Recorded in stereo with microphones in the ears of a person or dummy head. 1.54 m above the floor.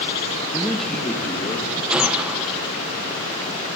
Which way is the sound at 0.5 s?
5° right (ahead or behind).